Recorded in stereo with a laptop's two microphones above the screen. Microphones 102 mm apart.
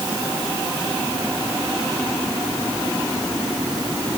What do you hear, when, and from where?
Only background noise.